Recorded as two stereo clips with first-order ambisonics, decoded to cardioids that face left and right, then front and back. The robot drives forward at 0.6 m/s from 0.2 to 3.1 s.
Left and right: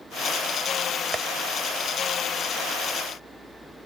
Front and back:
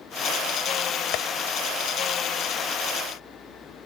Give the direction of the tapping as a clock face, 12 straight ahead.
1 o'clock.